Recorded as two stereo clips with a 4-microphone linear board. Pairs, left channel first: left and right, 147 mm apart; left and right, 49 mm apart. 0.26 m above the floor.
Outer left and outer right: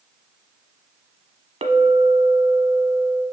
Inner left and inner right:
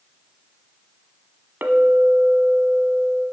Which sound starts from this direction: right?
A clink, at 1.6 s.